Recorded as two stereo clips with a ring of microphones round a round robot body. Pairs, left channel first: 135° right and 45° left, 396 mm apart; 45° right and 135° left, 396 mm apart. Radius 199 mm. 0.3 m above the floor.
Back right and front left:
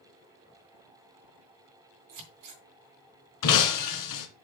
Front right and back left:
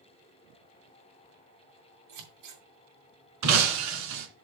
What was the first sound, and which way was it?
Scissors, 95° left.